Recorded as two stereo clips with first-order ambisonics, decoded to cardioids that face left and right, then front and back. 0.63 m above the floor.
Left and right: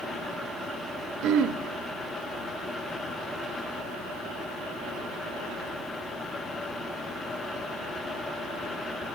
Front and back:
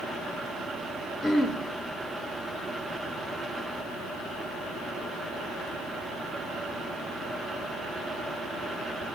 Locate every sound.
1.2 s throat clearing: 75° right, 0.7 m